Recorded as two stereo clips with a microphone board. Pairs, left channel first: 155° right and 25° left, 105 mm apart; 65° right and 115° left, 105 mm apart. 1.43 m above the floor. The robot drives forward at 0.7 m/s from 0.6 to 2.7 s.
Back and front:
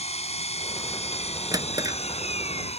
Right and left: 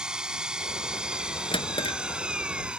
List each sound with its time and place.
0.0 s an engine running: 165° right
1.5 s a drawer: 30° right; by 2.0 s 35° right